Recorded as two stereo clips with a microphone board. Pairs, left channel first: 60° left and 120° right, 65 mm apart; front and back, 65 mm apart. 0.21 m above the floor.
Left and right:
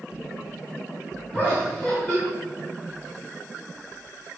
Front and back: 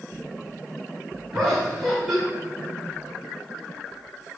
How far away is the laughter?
About 1.3 m.